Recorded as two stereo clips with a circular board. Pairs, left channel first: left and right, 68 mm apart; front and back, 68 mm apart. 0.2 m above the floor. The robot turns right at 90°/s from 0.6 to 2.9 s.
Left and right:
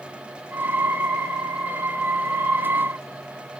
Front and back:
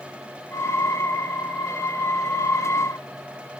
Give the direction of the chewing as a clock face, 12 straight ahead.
No chewing in this recording.